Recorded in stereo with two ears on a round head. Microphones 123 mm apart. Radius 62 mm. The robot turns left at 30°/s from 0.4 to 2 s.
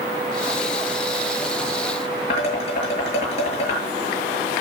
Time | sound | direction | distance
2.3 | dishes clattering | 45° left (ahead or behind) | 8 m